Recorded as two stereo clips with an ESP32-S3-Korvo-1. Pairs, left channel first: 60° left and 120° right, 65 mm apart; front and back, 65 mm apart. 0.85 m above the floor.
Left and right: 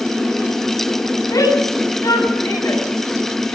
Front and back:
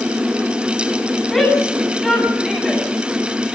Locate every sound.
1.3 s a shout: 90° left, 9 m; by 3.6 s 95° left, 7 m